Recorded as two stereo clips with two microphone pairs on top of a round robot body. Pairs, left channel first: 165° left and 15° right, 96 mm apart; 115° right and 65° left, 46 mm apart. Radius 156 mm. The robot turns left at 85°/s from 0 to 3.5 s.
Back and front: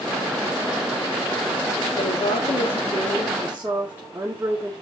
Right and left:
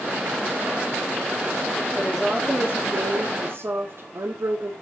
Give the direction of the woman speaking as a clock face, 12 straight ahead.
6 o'clock.